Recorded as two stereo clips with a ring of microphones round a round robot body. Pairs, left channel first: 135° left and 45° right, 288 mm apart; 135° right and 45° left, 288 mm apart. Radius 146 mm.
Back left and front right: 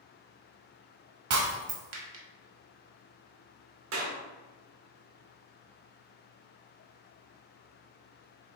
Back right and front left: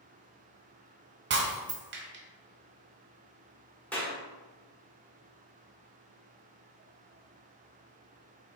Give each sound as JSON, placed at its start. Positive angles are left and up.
{"t": 1.3, "sound": "breaking glass", "azimuth_deg": -5, "distance_m": 0.9}
{"t": 3.9, "sound": "a clap", "azimuth_deg": -50, "distance_m": 1.1}